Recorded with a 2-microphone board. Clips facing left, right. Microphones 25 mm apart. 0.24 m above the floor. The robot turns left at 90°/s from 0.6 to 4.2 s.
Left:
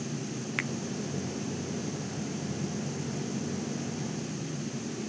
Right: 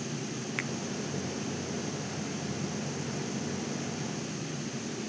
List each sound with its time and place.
0.6 s a finger snap: 10° left (ahead or behind); by 0.7 s centre (ahead or behind)